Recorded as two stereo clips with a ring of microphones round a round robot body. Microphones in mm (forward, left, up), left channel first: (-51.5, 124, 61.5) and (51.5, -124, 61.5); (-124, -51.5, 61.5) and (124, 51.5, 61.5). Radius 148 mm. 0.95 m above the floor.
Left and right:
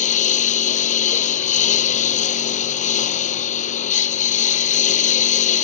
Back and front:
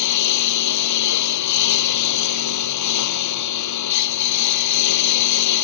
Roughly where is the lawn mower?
Behind.